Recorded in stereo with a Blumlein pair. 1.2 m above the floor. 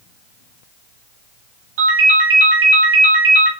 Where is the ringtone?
50° right, 1.7 m.